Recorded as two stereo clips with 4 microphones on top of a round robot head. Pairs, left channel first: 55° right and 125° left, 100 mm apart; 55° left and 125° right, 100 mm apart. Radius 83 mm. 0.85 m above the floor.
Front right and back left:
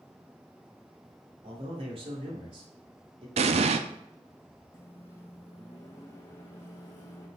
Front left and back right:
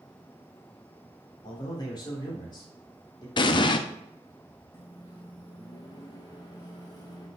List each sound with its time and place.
1.4 s a man speaking: 100° left, 3 m
3.4 s an explosion: 100° left, 0.5 m
4.7 s a microwave: 5° left, 1.6 m